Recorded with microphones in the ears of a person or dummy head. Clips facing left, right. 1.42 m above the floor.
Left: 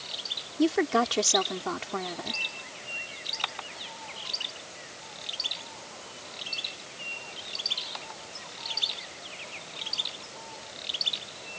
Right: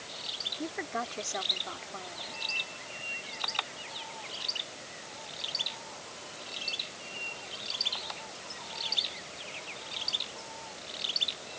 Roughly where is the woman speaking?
Left.